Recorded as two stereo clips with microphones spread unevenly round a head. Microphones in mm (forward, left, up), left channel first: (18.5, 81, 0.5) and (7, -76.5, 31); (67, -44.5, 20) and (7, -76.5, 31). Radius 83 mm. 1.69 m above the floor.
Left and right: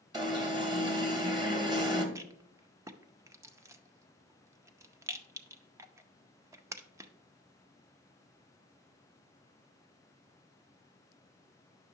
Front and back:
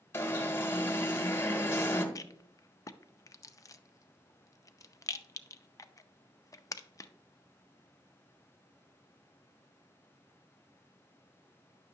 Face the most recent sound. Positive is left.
turn(degrees=-20)